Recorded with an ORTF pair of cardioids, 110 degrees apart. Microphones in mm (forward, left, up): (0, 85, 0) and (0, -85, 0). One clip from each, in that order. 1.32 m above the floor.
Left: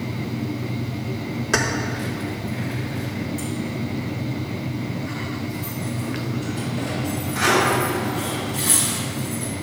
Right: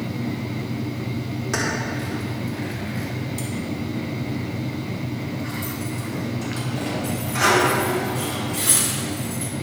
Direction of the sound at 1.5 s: 25° left.